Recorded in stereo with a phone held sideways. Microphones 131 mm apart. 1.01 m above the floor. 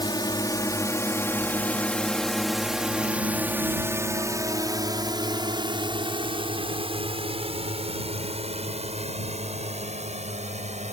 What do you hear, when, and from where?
0.0 s a drone: 35° left (ahead or behind); by 10.9 s 60° right (ahead or behind)